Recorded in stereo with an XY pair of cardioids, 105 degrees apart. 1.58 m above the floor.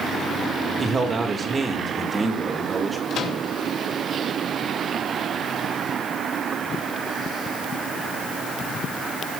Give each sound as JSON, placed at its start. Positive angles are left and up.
{"t": 0.8, "sound": "a man speaking", "azimuth_deg": -35, "distance_m": 3.0}
{"t": 3.1, "sound": "a microwave", "azimuth_deg": 70, "distance_m": 2.5}